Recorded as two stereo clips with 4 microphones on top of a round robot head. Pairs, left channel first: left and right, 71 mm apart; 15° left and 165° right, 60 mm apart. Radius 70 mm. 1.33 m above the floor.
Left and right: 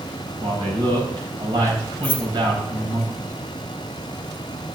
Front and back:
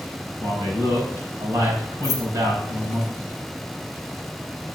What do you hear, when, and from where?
0.4 s a man speaking: 125° right, 5 m
2.0 s keys jangling: 25° left, 0.7 m